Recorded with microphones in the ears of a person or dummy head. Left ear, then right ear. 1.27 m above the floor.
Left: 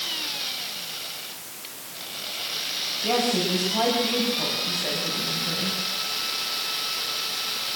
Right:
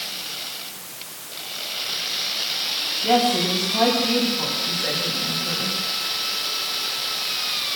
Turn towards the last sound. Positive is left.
turn(degrees=15)  # may be behind; listen again after turning